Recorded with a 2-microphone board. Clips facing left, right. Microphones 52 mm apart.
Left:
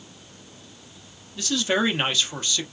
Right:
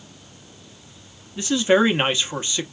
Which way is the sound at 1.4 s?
20° right (ahead or behind).